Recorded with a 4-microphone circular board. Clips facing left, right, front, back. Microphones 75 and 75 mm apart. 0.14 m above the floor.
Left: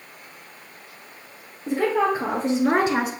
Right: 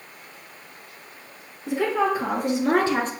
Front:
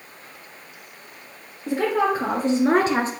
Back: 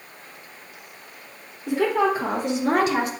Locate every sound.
1.7 s a woman speaking: 45° left, 3 m; by 3.1 s 15° left, 1.3 m